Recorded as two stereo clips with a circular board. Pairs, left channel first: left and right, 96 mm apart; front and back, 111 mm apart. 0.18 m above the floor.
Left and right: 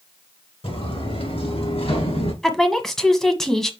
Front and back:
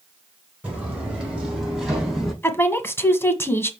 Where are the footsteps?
100° left, 5 m; by 2.3 s 95° left, 5 m.